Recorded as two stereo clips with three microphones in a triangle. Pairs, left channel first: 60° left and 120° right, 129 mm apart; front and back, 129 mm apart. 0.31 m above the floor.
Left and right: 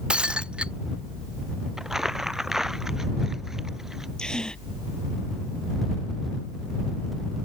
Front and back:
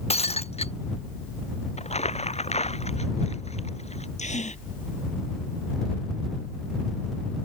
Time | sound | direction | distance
0.1 | breaking glass | 35° right | ?
1.8 | crumpling | 35° right | ?
4.2 | a gasp | 25° right | ?